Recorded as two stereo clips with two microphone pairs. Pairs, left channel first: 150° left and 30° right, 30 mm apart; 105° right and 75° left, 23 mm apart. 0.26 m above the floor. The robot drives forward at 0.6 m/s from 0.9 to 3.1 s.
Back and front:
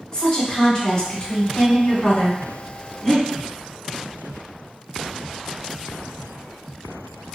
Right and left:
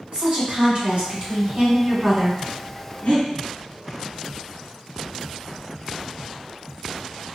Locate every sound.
0.1 s a woman speaking: 100° left, 1.7 m; by 2.4 s 130° left, 2 m
3.0 s breathing: 140° right, 1.1 m